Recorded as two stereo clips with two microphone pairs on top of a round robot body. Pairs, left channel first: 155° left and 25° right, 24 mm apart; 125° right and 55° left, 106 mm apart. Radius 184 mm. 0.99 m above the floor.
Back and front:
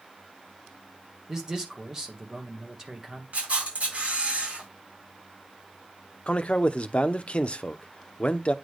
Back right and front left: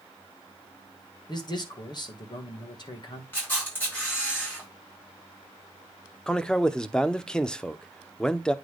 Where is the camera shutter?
50° right, 5 m.